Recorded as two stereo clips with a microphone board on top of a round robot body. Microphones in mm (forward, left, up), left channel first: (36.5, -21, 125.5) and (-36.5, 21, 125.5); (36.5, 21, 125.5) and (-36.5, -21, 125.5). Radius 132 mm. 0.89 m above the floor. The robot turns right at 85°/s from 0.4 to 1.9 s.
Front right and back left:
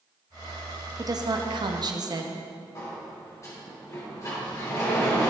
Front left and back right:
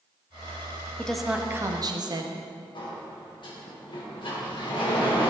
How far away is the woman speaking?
About 1.8 m.